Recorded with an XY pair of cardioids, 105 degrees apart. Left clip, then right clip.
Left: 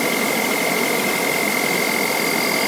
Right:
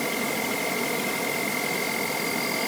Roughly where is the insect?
Ahead left.